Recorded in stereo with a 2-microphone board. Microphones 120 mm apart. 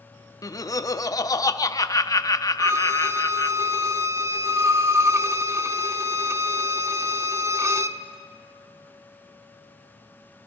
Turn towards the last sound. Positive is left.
turn(degrees=-25)  # may be behind; listen again after turning